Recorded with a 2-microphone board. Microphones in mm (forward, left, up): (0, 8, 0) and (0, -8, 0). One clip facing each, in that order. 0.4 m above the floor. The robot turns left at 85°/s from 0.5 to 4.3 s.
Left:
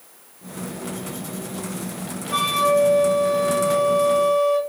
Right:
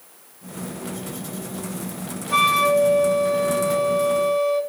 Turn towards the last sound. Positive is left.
turn(degrees=55)